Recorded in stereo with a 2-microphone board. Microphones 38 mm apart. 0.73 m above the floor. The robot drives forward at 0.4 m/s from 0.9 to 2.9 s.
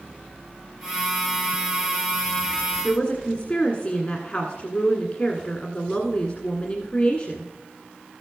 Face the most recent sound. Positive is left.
turn(degrees=40)  # may be behind; listen again after turning